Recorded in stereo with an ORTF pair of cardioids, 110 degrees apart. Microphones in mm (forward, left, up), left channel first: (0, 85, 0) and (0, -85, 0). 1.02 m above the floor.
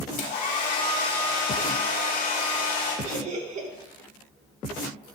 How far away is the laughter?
About 4 m.